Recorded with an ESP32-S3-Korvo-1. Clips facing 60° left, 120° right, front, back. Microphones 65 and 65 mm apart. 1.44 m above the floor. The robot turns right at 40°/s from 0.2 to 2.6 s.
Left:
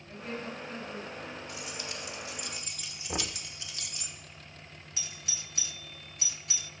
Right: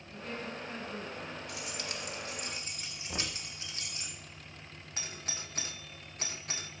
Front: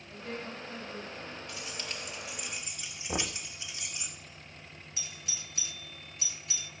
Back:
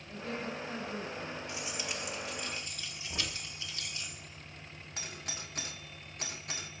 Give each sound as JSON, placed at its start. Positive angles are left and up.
{"t": 0.1, "sound": "a woman speaking", "azimuth_deg": 130, "distance_m": 7.5}
{"t": 1.5, "sound": "keys jangling", "azimuth_deg": -115, "distance_m": 2.0}
{"t": 3.1, "sound": "knocking", "azimuth_deg": -5, "distance_m": 1.0}
{"t": 5.0, "sound": "a doorbell", "azimuth_deg": -155, "distance_m": 0.6}